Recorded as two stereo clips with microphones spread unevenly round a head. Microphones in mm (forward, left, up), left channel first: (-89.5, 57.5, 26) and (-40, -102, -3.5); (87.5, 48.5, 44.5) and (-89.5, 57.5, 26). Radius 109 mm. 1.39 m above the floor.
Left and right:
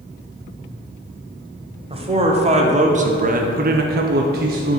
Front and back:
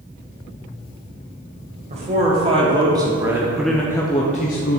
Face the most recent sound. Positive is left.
turn(degrees=-35)